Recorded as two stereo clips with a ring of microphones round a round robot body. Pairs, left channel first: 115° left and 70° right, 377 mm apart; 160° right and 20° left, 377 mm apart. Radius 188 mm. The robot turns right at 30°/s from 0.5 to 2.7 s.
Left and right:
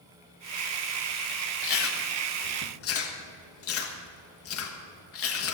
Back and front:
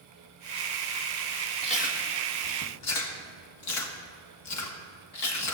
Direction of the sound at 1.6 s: 130° left.